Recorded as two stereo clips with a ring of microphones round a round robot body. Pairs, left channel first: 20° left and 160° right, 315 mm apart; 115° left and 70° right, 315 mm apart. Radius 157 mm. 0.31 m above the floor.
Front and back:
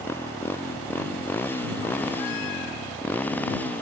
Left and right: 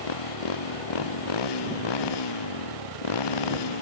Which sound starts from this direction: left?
A motorcycle, at 0.0 s.